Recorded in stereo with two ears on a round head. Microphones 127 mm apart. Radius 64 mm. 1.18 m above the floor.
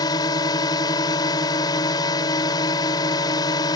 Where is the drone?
30° left (ahead or behind).